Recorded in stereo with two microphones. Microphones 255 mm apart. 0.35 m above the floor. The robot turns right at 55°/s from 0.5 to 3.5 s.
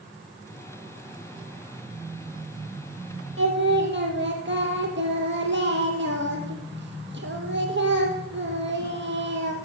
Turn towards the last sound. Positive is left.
turn(degrees=-50)  # may be behind; listen again after turning